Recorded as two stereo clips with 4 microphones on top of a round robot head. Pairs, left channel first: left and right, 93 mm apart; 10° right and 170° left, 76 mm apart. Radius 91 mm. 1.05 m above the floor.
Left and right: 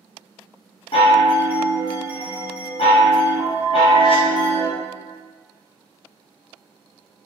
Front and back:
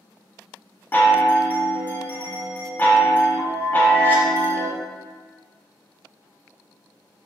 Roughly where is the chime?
Ahead left.